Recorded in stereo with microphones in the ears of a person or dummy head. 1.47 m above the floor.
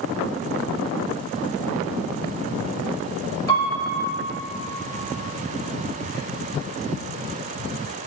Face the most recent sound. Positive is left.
turn(degrees=20)  # may be behind; listen again after turning